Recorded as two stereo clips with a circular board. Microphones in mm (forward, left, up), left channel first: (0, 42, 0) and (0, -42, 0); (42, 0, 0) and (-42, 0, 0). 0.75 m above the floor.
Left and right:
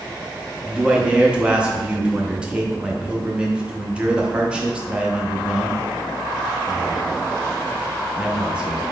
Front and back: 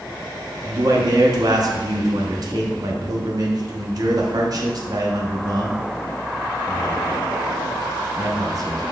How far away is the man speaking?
About 0.6 m.